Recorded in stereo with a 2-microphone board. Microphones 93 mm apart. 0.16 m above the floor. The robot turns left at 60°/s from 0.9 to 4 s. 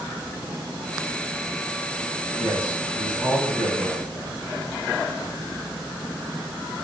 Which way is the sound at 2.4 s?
Centre (ahead or behind).